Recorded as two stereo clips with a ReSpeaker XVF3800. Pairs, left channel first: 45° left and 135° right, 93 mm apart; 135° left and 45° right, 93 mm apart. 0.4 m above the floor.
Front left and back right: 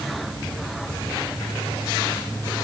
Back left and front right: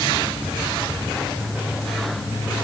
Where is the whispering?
I don't hear whispering.